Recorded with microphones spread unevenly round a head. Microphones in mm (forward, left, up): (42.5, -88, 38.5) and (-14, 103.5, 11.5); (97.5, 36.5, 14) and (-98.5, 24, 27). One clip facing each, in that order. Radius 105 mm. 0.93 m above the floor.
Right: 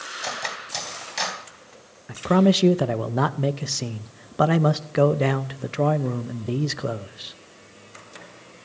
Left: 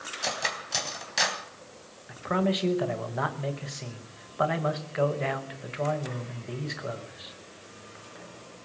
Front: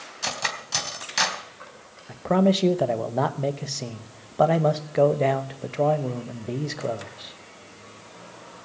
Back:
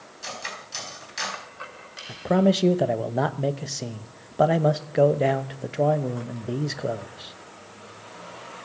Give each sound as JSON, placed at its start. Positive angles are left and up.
{"t": 0.2, "sound": "cutlery clinking", "azimuth_deg": 20, "distance_m": 3.5}
{"t": 2.1, "sound": "a man speaking", "azimuth_deg": -90, "distance_m": 1.0}